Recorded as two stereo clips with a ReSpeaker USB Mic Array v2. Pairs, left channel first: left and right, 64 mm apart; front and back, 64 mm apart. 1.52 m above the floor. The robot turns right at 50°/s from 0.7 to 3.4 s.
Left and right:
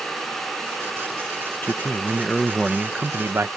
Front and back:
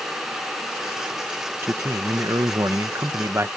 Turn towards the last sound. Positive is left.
turn(degrees=-135)